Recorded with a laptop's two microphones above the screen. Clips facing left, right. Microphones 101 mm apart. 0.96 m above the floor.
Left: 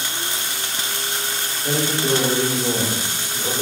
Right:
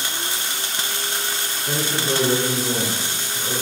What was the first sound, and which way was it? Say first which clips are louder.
A man speaking: left 3 dB; 55° left (ahead or behind).